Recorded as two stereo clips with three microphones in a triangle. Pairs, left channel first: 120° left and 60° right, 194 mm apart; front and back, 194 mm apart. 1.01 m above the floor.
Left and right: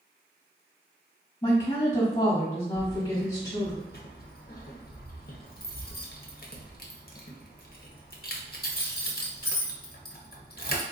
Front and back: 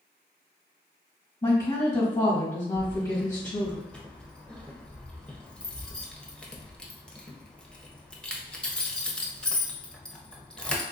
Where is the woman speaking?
50° left, 1.4 m.